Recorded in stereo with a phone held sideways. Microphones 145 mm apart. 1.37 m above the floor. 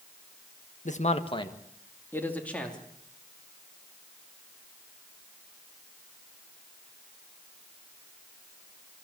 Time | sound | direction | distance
0.8 | a man speaking | 60° left (ahead or behind) | 1.3 m